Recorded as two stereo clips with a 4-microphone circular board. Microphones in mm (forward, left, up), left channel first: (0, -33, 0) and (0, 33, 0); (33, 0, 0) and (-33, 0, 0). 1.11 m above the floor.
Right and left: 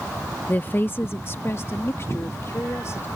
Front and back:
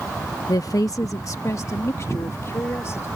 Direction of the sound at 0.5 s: 25° right.